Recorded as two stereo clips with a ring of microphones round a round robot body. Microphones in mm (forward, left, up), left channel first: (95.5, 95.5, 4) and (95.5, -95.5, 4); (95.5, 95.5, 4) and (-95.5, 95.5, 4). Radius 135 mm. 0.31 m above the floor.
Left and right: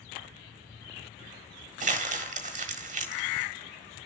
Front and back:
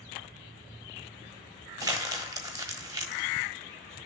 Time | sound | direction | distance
1.8 | crumpling | 115° right | 1.1 m